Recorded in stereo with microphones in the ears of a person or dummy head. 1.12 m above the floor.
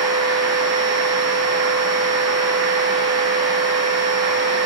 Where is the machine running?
20° right (ahead or behind), 1.0 m.